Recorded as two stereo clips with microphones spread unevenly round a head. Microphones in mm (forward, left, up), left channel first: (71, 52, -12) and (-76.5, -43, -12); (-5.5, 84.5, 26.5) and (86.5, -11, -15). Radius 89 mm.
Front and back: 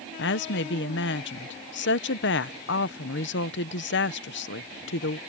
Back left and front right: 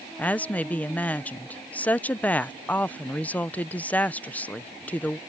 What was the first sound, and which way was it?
A woman speaking, 55° left.